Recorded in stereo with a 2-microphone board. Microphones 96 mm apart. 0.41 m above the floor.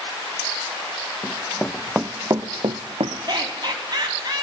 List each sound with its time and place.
1.2 s running footsteps: 25° left (ahead or behind), 1.7 m; by 3.2 s 80° right, 1.6 m
3.3 s laughter: 45° right (ahead or behind), 3.5 m